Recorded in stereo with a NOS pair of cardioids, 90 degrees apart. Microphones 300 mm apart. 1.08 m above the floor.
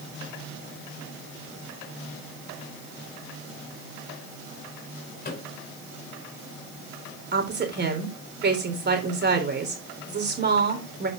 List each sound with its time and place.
5.2 s a microwave: 30° left, 3 m
7.3 s a woman speaking: 30° right, 3.5 m